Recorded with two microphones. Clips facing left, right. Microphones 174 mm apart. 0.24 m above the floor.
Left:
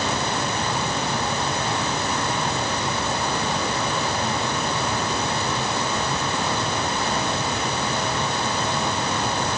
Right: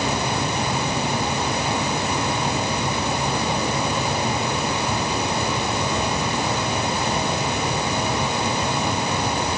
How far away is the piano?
I don't hear a piano.